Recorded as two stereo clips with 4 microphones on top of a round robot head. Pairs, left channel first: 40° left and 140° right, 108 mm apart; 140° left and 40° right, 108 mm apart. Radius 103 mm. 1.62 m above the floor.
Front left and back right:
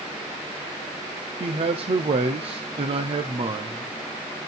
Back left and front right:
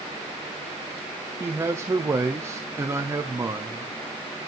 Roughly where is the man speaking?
Right.